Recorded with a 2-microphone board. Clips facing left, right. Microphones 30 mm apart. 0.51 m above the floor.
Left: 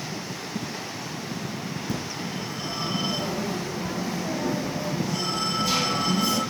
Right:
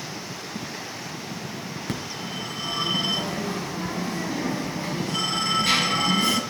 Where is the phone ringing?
55° right (ahead or behind), 4.5 m.